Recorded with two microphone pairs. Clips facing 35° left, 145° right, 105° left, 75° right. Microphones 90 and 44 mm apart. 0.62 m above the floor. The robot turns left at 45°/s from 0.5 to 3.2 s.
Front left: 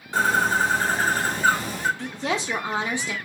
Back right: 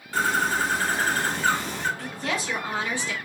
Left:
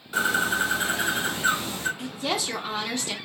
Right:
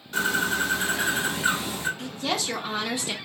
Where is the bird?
45° left, 1.2 m; by 1.9 s 20° right, 1.2 m.